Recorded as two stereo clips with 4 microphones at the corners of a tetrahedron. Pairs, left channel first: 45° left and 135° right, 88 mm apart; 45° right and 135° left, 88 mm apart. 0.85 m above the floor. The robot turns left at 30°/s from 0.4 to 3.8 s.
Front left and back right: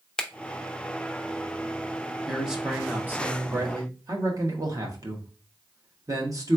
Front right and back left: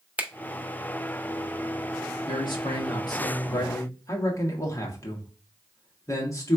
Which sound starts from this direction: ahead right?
A man speaking, at 2.3 s.